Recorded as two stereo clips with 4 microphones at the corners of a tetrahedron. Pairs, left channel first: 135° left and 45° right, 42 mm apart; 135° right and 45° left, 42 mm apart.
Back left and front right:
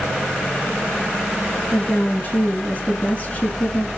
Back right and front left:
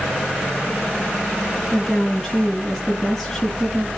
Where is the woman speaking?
145° left, 1.8 m.